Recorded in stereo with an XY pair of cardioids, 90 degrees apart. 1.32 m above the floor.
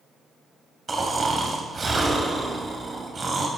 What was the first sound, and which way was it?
Snoring, 35° right.